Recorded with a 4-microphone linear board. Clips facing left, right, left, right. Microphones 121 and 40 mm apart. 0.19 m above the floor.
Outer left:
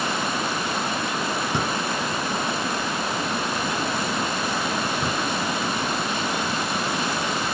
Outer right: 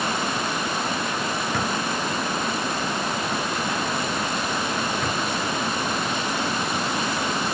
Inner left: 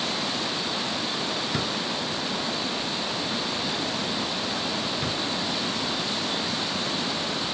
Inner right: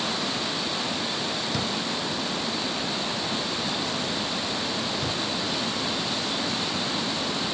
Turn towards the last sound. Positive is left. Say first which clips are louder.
# even, even
turn(degrees=25)  # may be behind; listen again after turning